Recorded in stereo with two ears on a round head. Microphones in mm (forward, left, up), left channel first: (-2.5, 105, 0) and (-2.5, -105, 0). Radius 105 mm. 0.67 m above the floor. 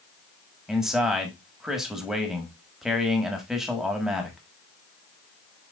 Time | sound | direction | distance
0.7 | a man speaking | 5° right (ahead or behind) | 1.2 m